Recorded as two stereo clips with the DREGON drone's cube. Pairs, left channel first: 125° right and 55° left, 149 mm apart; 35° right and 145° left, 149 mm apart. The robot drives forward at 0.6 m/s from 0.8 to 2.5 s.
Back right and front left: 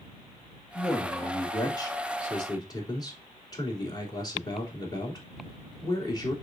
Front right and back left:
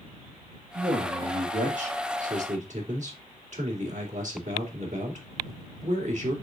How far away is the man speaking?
About 1.8 m.